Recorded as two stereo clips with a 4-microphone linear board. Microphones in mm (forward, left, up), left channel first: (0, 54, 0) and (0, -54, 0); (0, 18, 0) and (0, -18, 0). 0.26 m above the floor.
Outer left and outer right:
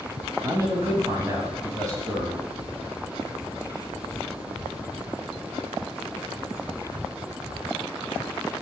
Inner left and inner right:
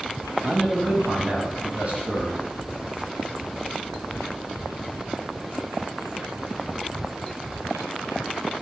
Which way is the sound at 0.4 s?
30° right (ahead or behind).